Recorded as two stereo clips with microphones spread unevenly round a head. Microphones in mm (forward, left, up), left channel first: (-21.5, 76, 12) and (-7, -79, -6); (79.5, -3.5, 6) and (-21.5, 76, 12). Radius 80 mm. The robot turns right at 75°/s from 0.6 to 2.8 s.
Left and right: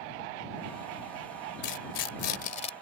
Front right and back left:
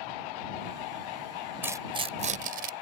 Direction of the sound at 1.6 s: 70° left.